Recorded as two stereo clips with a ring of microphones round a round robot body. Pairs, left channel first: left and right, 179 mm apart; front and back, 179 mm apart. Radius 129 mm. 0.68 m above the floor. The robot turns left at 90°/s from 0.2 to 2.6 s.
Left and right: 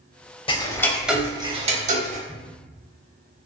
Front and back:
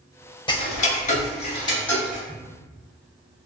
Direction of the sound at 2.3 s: 145° right.